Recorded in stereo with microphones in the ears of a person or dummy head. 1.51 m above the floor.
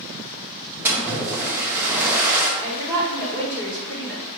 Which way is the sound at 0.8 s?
10° right (ahead or behind).